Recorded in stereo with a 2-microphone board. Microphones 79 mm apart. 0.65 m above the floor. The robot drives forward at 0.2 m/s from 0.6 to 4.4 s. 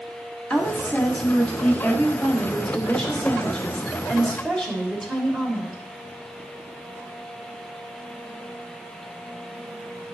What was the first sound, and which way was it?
A woman speaking, 15° left (ahead or behind).